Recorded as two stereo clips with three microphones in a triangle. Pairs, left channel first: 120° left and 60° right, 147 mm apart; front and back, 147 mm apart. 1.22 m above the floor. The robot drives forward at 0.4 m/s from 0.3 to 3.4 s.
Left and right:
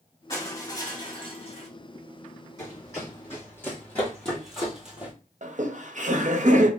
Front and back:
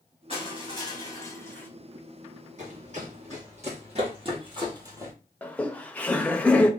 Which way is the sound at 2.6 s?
175° right.